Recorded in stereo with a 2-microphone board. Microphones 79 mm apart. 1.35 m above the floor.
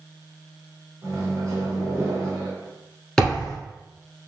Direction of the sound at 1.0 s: 40° right (ahead or behind).